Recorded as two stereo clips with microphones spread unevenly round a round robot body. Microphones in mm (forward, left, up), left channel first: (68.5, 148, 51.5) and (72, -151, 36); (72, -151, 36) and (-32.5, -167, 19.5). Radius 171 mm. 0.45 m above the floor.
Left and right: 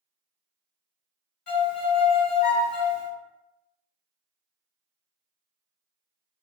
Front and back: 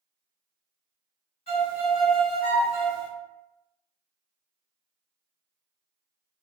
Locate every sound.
1.5 s a violin: 40° left, 2.0 m